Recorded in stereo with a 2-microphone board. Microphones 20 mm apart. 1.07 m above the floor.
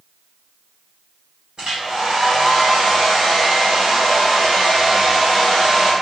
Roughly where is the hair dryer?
Right.